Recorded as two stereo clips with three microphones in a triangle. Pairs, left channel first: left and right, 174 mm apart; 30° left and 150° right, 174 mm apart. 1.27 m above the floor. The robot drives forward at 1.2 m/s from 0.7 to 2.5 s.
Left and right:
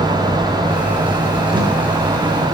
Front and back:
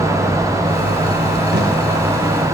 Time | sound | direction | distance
1.5 | tape being pulled | 155° right | 3.5 m